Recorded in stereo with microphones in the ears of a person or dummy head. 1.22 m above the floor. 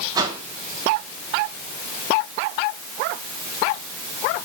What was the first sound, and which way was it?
A whoosh, 20° right (ahead or behind).